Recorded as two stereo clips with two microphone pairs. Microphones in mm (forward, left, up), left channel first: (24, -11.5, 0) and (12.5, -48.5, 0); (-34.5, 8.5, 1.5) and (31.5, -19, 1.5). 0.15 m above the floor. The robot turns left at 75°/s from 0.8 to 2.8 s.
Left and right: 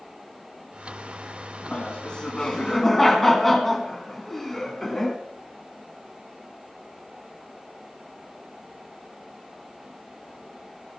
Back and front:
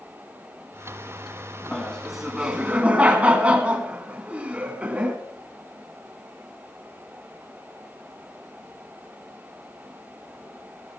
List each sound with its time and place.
1.7 s laughter: 80° left, 1.7 m; by 5.2 s straight ahead, 1.7 m